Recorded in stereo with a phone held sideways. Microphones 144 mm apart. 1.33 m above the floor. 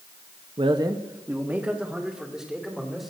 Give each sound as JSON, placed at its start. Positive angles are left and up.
{"t": 0.6, "sound": "a man speaking", "side_deg": -40, "distance_m": 0.7}